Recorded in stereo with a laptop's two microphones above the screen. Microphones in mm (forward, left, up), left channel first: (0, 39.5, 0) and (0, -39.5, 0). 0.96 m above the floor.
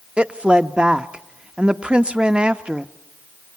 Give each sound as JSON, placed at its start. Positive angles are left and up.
{"t": 0.2, "sound": "a woman speaking", "side_deg": -15, "distance_m": 0.9}